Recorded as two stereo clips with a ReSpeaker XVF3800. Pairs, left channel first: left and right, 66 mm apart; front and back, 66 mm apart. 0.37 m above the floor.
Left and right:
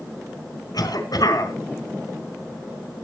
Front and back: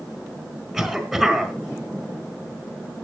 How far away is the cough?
About 4.5 m.